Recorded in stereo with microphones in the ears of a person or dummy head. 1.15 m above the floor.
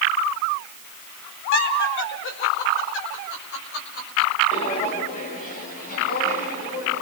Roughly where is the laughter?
Left.